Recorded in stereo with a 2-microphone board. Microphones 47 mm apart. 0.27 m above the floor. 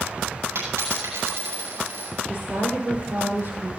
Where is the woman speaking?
40° right (ahead or behind), 10 m.